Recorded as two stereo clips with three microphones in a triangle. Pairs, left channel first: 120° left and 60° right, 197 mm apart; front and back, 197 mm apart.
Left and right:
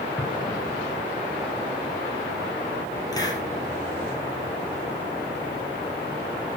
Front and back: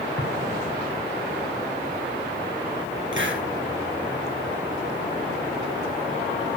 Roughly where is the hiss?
Behind.